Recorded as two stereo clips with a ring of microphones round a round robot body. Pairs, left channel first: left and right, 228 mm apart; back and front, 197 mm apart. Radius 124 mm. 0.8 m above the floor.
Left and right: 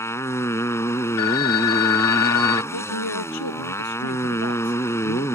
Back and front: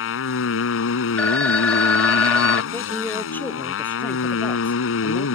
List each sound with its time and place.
0.0 s a motorcycle: 170° left
1.2 s a phone ringing: 95° left
2.7 s a man speaking: 100° left